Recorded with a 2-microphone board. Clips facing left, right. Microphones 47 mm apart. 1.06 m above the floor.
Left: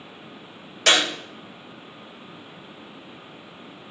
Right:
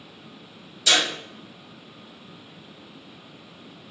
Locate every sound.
0.9 s a clap: 70° left (ahead or behind), 5 m